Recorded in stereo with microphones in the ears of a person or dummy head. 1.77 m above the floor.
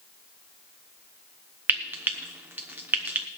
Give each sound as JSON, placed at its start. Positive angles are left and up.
{"t": 1.7, "sound": "frying", "side_deg": -10, "distance_m": 0.8}